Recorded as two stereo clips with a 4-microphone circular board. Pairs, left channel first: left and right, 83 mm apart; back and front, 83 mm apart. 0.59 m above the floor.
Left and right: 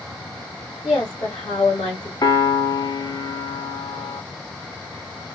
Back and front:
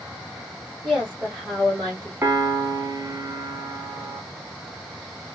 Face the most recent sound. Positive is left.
turn(degrees=60)